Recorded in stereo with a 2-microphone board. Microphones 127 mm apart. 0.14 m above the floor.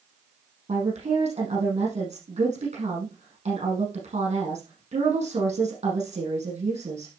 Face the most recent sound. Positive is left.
turn(degrees=-60)  # may be behind; listen again after turning